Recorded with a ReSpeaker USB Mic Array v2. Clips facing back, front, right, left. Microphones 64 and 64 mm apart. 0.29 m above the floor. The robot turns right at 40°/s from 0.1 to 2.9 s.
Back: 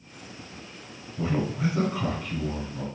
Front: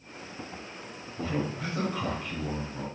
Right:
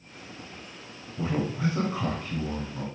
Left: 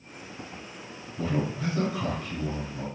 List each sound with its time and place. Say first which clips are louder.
1.2 s a man speaking: back 4 dB, right 1 dB; 130° right, 1.2 m; by 2.9 s 65° right, 1.2 m